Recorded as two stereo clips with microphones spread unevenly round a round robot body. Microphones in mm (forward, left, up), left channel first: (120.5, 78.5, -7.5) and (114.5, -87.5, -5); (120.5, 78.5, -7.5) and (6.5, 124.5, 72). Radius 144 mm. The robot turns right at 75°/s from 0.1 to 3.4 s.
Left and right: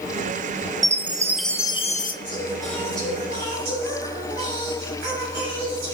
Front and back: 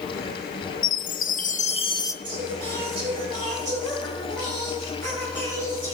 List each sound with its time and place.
0.8 s a chime: 45° right, 1.0 m; by 2.1 s 50° left, 1.0 m
2.2 s singing: 135° left, 7 m; by 5.9 s 135° right, 7 m